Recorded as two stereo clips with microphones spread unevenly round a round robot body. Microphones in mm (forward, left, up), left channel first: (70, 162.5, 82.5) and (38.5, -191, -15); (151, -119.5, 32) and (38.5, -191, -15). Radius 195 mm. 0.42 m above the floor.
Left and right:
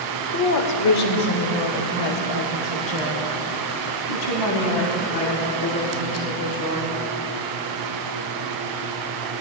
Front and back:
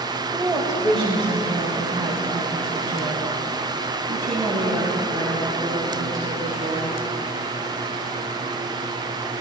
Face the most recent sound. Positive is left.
turn(degrees=125)